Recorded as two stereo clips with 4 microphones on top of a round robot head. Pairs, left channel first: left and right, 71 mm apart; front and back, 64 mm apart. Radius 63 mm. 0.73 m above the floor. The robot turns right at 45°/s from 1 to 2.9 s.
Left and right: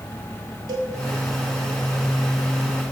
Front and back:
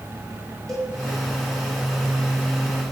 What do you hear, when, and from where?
0.7 s a cowbell: 85° right, 1.5 m